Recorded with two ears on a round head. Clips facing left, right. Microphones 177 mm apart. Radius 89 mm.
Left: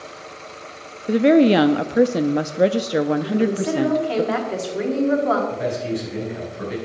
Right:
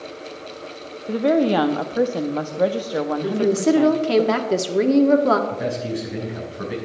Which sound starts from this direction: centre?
A man speaking, at 5.5 s.